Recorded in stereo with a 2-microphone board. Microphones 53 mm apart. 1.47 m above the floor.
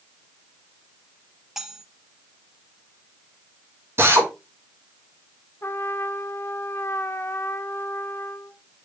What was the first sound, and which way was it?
Cutlery clinking, 5° right (ahead or behind).